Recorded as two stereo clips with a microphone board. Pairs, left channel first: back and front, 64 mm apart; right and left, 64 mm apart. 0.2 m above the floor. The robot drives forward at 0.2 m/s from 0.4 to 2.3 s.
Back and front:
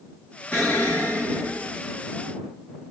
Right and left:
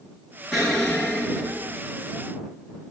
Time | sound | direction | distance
0.5 | an explosion | 160° right | 1.7 m